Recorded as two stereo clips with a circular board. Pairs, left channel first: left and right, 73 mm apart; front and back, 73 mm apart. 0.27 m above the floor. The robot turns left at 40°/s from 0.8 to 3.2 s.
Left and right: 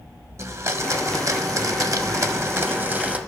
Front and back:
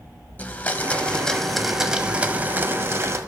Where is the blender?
60° right, 0.5 m; by 3.2 s 155° right, 0.5 m.